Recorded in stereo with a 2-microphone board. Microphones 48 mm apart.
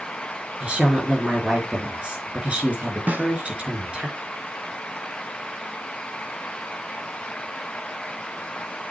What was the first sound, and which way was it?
A woman speaking, 25° right (ahead or behind).